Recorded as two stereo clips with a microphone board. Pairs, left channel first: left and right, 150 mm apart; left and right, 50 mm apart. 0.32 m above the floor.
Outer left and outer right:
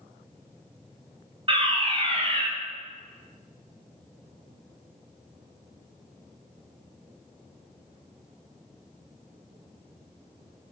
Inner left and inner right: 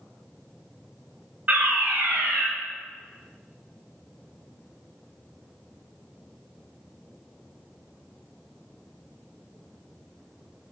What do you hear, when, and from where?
1.5 s a fire alarm: 40° right (ahead or behind), 3 m